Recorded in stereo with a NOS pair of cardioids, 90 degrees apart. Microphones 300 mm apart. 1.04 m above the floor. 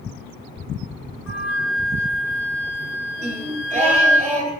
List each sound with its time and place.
1.3 s a flute: 65° left, 1.0 m
3.2 s singing: 25° right, 0.8 m